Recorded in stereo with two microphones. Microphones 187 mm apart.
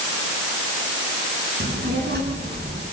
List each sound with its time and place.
1.6 s a child speaking: 65° right (ahead or behind), 9 m